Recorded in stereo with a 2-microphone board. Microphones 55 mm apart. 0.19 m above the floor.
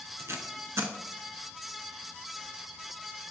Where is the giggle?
No giggle in this recording.